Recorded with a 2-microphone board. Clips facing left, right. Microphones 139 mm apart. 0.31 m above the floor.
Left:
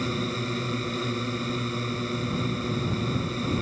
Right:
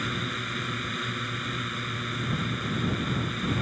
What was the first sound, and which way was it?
A drone, 30° left (ahead or behind).